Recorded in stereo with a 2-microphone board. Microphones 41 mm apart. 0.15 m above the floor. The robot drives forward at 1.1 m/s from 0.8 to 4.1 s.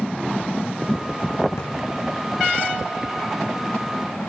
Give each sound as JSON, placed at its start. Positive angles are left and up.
{"t": 1.6, "sound": "a drawer", "side_deg": 80, "distance_m": 4.0}